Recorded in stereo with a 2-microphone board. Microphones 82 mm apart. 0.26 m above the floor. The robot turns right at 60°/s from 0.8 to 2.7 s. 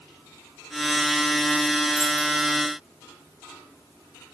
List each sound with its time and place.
1.9 s keys jangling: 10° left (ahead or behind), 2.5 m; by 2.3 s 10° right (ahead or behind), 2.5 m